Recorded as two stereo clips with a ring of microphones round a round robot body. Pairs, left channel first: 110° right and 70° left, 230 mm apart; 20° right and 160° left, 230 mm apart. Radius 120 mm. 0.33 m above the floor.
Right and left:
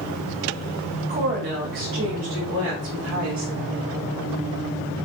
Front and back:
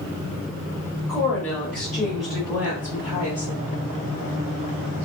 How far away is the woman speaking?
About 1.3 m.